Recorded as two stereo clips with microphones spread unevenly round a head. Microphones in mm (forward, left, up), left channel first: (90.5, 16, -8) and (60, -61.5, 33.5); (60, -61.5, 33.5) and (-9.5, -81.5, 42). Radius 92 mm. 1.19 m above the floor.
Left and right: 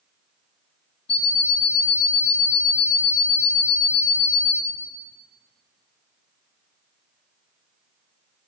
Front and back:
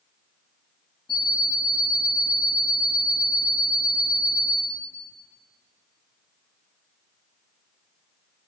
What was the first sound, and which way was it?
An alarm clock, 60° left.